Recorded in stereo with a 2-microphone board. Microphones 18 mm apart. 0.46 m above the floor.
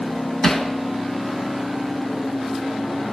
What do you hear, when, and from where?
0.4 s hammering: 10° left (ahead or behind), 3 m